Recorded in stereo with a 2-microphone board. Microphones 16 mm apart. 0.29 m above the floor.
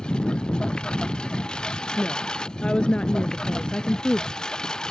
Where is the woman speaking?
75° left (ahead or behind).